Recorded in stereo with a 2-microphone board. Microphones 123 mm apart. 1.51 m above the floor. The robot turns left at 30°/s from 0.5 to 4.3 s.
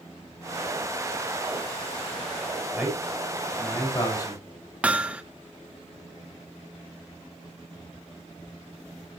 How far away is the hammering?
About 1.0 m.